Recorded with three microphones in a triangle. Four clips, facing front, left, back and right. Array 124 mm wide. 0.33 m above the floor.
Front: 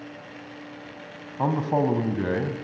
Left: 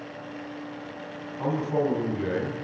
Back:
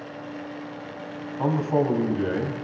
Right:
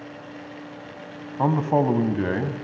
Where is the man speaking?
70° right, 3 m.